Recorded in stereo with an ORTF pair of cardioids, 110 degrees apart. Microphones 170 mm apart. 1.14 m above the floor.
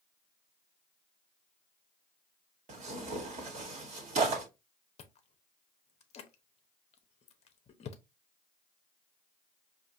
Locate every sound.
2.7 s tearing paper: 45° right, 1.8 m
5.0 s chewing: 40° left, 0.8 m